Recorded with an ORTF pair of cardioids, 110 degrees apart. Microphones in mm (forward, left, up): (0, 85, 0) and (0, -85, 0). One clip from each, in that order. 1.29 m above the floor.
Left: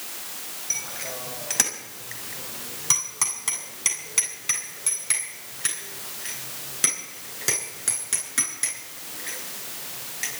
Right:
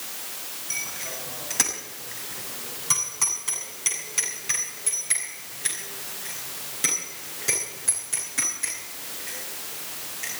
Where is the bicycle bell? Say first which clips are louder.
Left 1 dB; 30° left, 5 m; by 10.4 s 50° left, 14 m.